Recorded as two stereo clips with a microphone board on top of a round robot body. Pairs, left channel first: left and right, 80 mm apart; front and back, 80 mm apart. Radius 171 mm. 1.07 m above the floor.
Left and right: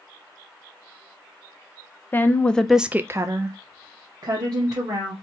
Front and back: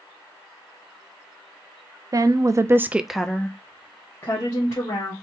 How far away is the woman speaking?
About 0.8 m.